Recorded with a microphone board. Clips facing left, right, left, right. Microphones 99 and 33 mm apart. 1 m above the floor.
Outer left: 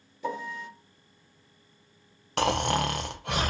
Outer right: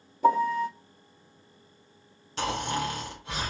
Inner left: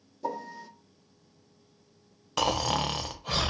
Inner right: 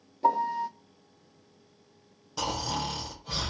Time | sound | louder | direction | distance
0.2 | a piano | outer right 12 dB, inner right 10 dB | 40° right (ahead or behind) | 0.7 m
2.4 | snoring | outer left 4 dB, inner left 4 dB | 60° left (ahead or behind) | 0.6 m